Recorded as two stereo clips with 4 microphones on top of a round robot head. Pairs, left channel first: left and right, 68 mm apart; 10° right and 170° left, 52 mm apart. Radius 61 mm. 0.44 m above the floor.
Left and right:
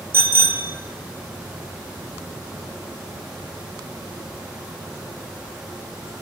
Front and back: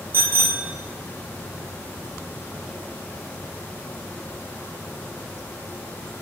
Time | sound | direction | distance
0.1 | a bicycle bell | 145° right | 2 m